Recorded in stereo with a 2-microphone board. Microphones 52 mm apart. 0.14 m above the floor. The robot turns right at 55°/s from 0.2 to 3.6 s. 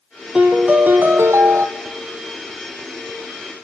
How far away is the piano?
About 0.9 m.